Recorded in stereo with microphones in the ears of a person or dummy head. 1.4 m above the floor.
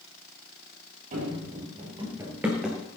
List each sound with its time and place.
1.1 s running footsteps: 35° right (ahead or behind), 2.5 m; by 2.8 s centre (ahead or behind), 1.9 m